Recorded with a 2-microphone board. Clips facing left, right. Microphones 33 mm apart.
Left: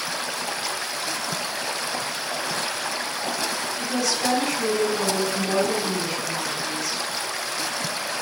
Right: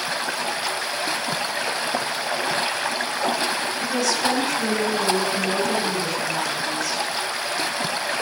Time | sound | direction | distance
0.0 | running water | 30° right (ahead or behind) | 1.0 m
3.8 | a woman speaking | 15° left (ahead or behind) | 8 m